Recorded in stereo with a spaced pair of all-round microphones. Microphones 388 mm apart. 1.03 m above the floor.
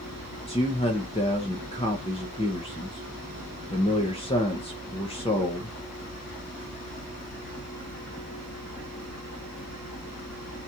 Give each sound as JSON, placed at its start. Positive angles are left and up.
{"t": 0.5, "sound": "a man speaking", "side_deg": 15, "distance_m": 0.6}